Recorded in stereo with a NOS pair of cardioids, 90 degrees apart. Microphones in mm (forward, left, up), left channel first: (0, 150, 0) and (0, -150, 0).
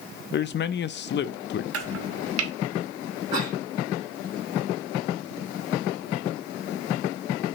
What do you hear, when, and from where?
0.3 s a man speaking: 40° left, 0.5 m
1.7 s chopping: 55° right, 1.0 m
3.3 s a cough: 15° right, 2.5 m